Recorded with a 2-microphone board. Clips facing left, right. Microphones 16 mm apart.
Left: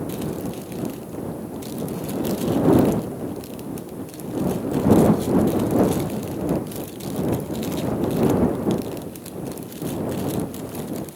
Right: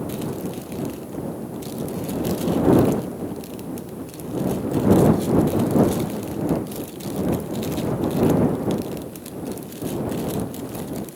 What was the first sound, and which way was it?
Only background noise.